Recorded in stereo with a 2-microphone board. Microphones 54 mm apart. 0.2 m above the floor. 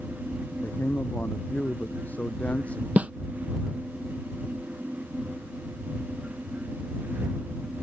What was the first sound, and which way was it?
A man speaking, 45° left (ahead or behind).